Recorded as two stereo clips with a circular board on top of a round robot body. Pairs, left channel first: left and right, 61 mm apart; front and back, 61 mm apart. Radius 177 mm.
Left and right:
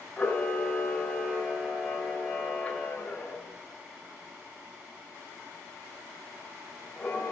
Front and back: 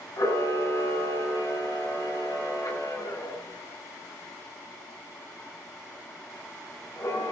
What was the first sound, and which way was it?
A camera shutter, 20° left.